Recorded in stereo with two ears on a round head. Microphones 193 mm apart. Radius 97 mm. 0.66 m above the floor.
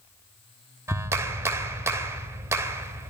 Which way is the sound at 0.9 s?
10° right (ahead or behind).